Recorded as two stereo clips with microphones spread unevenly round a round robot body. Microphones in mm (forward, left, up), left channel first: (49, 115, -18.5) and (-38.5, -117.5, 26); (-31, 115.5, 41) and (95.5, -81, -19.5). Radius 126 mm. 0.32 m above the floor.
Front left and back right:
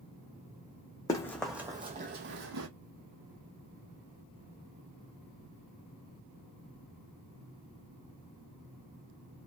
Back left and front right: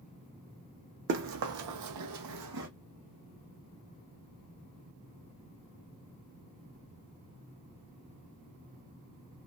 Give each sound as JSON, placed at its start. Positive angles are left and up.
{"t": 1.1, "sound": "running footsteps", "azimuth_deg": -10, "distance_m": 0.7}